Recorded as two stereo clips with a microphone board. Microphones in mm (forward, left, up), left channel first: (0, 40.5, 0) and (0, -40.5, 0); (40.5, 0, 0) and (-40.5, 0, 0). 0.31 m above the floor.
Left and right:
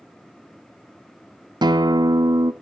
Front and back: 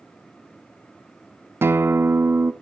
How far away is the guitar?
About 0.6 m.